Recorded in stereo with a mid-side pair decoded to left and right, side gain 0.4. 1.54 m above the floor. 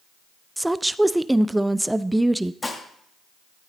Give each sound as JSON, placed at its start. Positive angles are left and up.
{"t": 0.6, "sound": "a woman speaking", "azimuth_deg": -10, "distance_m": 0.7}
{"t": 2.6, "sound": "dishes clattering", "azimuth_deg": 25, "distance_m": 2.0}